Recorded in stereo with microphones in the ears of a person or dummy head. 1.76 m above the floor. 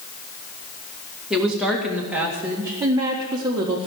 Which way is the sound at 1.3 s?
Centre (ahead or behind).